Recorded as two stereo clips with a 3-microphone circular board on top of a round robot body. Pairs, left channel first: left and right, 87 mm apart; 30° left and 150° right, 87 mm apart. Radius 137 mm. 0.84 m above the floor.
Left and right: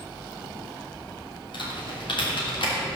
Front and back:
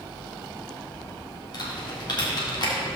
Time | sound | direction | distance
1.5 | typing on a keyboard | 65° left | 3.5 m